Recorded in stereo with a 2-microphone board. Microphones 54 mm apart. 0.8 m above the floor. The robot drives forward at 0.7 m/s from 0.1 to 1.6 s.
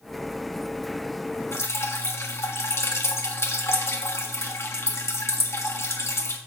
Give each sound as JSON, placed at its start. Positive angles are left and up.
{"t": 1.5, "sound": "dripping", "side_deg": 55, "distance_m": 1.5}